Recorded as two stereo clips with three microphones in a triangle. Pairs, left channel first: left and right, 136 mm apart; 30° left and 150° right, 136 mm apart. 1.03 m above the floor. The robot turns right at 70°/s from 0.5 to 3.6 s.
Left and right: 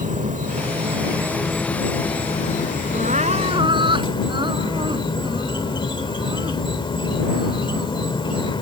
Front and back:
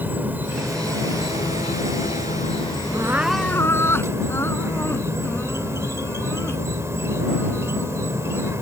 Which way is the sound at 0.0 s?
75° right.